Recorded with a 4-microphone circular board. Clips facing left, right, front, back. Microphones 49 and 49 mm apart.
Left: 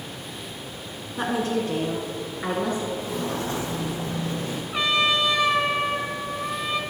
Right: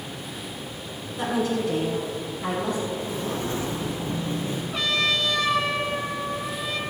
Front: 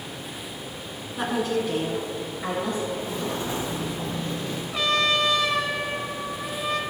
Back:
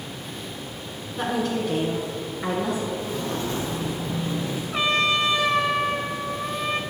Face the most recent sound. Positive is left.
turn(degrees=145)